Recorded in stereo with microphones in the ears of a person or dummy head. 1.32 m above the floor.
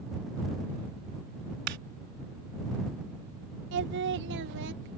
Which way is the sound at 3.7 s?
65° right (ahead or behind).